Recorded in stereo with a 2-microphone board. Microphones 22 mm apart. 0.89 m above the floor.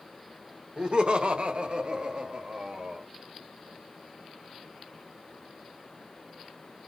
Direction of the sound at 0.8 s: 45° right (ahead or behind).